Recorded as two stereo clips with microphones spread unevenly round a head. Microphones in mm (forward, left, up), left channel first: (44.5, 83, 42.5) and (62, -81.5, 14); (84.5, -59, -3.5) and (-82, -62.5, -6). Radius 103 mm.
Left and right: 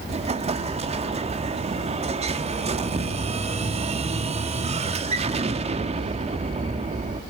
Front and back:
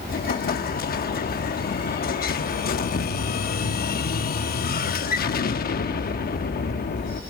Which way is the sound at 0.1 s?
30° right.